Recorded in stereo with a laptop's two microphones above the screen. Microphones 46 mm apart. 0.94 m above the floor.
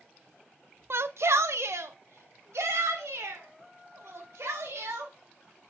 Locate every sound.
0.9 s a shout: 60° right (ahead or behind), 0.5 m; by 5.1 s 80° right, 4.5 m